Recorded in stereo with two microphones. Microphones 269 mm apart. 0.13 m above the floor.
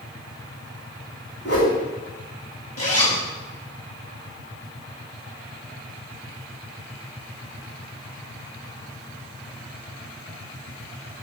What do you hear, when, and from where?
1.4 s a whoosh: 60° left (ahead or behind), 2.0 m
2.8 s a zipper: 65° left (ahead or behind), 1.1 m